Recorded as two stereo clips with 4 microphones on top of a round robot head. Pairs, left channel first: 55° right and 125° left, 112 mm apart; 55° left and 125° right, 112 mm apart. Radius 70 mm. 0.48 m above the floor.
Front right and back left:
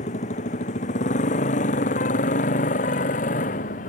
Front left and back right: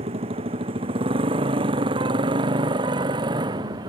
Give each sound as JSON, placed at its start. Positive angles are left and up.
{"t": 0.0, "sound": "a motorcycle", "azimuth_deg": -80}